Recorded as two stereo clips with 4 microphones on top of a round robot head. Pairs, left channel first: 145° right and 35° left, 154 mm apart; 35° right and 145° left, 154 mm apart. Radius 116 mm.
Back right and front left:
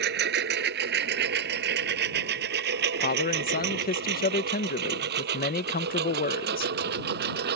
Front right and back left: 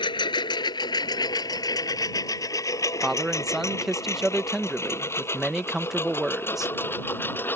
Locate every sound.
0.0 s a lawn mower: 25° left; by 7.6 s 40° left
3.0 s a man speaking: 125° right